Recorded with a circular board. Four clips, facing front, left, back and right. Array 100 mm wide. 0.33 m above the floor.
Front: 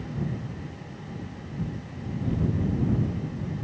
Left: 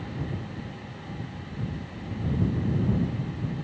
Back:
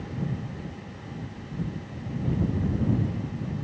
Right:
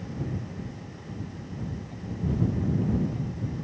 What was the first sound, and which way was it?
Only background noise.